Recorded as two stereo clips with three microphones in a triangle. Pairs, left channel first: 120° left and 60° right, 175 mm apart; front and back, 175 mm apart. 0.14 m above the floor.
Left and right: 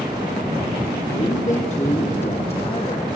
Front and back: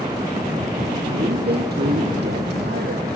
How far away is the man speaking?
About 4 m.